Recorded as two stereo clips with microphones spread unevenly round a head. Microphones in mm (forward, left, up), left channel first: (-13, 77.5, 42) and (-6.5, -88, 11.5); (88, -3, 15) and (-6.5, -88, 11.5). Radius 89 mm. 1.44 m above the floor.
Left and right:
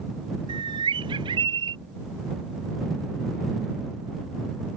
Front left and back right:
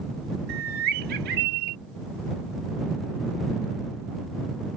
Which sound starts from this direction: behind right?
A bird, at 0.5 s.